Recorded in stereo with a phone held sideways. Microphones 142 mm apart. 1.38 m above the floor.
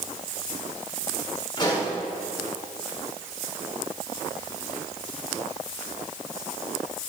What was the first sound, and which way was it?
A pop, 30° left (ahead or behind).